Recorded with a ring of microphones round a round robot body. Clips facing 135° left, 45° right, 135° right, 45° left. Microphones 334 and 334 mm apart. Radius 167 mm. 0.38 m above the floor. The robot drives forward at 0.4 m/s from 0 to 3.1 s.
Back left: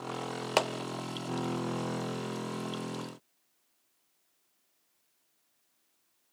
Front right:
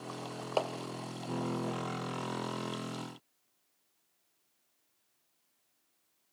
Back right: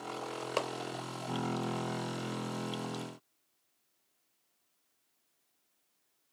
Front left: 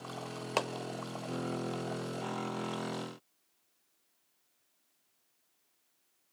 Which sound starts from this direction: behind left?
A clap, at 0.6 s.